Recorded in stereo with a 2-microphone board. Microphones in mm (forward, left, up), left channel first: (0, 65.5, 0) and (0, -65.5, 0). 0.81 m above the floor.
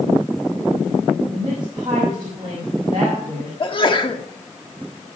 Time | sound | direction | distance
1.3 | a woman speaking | 40° right (ahead or behind) | 5.5 m
3.6 | a sneeze | 40° left (ahead or behind) | 1.5 m